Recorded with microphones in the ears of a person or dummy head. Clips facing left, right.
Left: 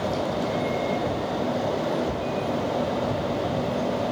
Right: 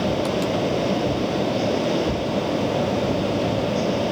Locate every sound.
0.0 s a fan: 40° right (ahead or behind)